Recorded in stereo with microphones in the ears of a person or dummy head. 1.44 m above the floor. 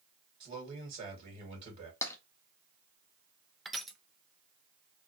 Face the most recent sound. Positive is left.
turn(degrees=5)  # may be behind; listen again after turning